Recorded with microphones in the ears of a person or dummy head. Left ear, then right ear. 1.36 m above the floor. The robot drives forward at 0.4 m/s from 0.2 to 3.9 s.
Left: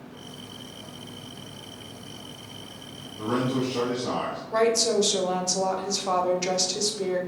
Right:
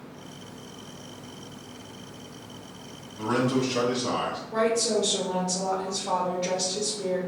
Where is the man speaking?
Centre (ahead or behind), 1.5 m.